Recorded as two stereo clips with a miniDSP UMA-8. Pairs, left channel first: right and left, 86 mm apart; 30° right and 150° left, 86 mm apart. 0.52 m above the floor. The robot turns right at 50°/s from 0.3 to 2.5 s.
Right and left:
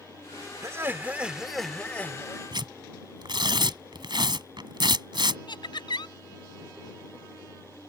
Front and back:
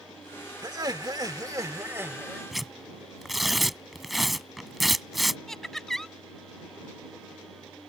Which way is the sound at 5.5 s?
115° right.